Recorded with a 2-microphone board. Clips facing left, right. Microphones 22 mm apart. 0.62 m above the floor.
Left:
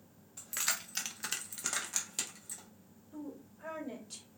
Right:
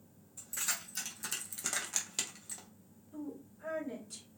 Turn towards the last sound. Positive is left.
turn(degrees=35)  # may be behind; listen again after turning